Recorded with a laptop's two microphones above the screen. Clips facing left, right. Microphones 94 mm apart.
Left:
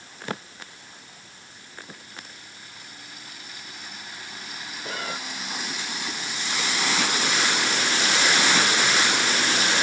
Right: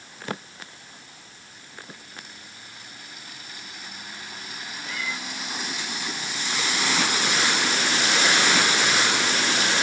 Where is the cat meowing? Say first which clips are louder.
Left 1 dB; 50° left (ahead or behind).